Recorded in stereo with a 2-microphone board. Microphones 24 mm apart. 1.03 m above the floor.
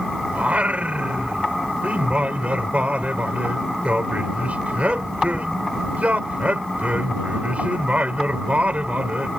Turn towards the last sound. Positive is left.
turn(degrees=-70)  # may be behind; listen again after turning